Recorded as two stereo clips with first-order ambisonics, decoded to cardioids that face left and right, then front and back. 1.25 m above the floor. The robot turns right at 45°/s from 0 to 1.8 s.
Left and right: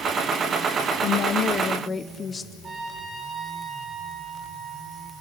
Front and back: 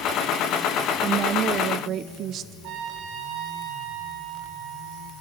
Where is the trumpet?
155° right, 3 m.